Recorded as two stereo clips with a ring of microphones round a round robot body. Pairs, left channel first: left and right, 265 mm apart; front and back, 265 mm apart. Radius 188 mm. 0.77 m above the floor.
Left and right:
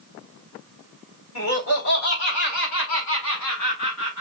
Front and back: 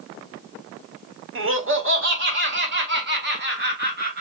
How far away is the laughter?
About 2.0 m.